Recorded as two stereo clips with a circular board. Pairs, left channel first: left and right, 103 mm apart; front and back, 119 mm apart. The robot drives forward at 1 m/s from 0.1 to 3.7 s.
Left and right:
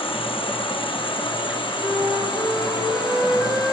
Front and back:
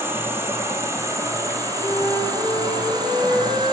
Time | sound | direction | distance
0.0 | an insect | 110° left | 9 m
1.8 | a flute | 155° right | 9 m